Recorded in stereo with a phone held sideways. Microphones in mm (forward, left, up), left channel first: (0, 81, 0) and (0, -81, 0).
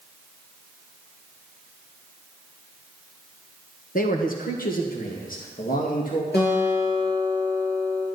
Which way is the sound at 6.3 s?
75° left (ahead or behind).